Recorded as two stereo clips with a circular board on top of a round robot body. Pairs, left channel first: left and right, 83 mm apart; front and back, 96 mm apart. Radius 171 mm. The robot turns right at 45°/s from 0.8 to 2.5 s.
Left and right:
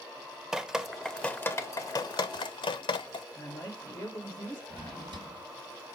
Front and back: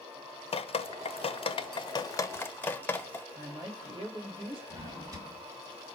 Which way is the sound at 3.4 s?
145° left.